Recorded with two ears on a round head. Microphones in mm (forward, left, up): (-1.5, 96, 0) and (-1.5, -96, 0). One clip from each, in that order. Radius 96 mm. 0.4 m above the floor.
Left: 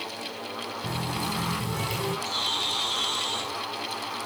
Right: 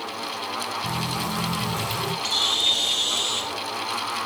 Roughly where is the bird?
Right.